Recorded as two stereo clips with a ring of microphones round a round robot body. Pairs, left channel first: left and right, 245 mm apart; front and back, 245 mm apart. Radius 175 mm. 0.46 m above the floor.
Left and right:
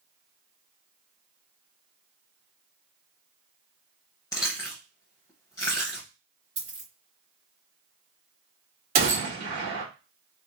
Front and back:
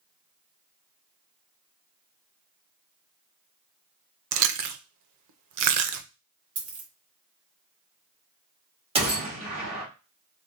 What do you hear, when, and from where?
4.3 s chewing: 170° left, 0.5 m
6.6 s a dropped coin: 160° right, 1.3 m
8.9 s a gunshot: 125° right, 1.5 m